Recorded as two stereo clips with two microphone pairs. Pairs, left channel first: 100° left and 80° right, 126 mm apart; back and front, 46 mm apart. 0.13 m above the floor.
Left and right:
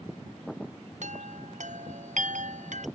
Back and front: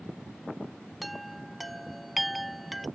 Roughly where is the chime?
Right.